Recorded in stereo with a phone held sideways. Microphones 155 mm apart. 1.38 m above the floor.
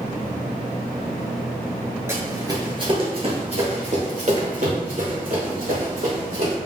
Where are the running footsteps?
15° right (ahead or behind), 1.4 m; by 6.5 s 65° right (ahead or behind), 3.5 m.